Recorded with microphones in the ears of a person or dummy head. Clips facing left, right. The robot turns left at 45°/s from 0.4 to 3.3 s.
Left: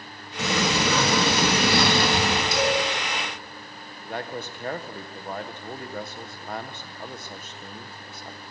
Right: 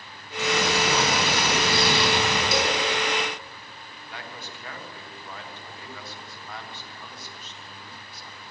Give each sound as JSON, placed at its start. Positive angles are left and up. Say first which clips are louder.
{"t": 0.4, "sound": "a sliding door", "louder": "even", "azimuth_deg": 120, "distance_m": 3.0}
{"t": 2.5, "sound": "a cowbell", "louder": "left 3 dB", "side_deg": -50, "distance_m": 5.0}
{"t": 4.0, "sound": "a man speaking", "louder": "left 9 dB", "side_deg": 45, "distance_m": 1.6}